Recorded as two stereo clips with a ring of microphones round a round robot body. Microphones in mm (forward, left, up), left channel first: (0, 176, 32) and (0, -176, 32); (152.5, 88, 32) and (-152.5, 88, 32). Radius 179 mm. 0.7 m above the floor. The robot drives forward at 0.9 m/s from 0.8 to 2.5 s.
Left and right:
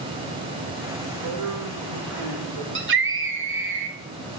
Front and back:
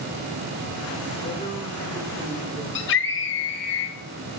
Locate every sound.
1.2 s a man speaking: 70° right, 2.5 m; by 2.6 s 100° right, 2 m
2.8 s a scream: 40° right, 0.8 m